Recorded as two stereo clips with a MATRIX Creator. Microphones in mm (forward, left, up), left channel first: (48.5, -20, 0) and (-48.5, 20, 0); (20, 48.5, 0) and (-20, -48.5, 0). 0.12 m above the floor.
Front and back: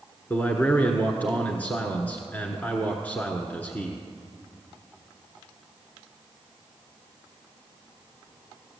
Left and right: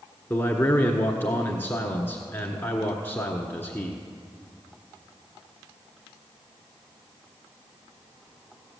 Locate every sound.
0.3 s a man speaking: 30° left, 1.2 m